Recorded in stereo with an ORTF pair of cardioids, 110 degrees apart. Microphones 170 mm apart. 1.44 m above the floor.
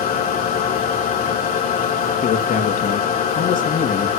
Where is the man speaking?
50° left, 3 m.